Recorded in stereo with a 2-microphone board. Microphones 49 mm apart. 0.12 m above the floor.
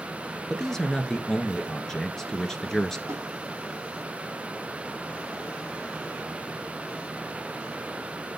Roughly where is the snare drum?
Right.